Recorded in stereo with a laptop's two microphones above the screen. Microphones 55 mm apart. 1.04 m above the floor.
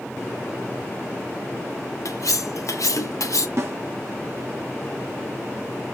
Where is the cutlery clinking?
75° left (ahead or behind), 0.5 m.